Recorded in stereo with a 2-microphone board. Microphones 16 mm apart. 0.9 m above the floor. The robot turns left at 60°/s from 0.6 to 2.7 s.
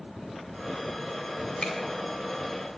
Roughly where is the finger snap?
Left.